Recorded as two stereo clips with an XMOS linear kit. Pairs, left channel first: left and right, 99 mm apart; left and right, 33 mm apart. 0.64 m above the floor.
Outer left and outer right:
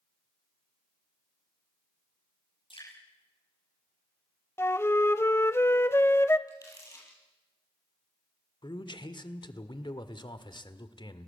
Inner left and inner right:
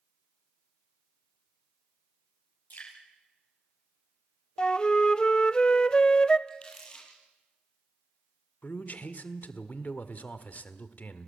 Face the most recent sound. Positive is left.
turn(degrees=50)  # may be behind; listen again after turning